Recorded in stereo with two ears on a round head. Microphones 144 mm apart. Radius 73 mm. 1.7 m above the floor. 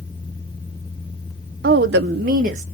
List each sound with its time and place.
1.6 s a woman speaking: 65° right (ahead or behind), 0.5 m; by 2.6 s 50° right (ahead or behind), 0.9 m